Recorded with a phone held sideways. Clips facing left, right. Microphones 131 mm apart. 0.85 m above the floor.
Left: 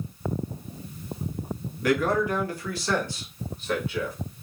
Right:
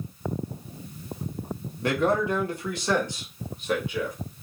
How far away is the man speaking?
About 1.0 m.